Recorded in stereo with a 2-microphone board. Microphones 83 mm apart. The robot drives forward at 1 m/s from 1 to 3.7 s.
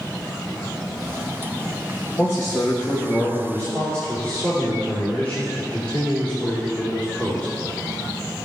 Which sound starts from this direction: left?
A man speaking, at 2.2 s.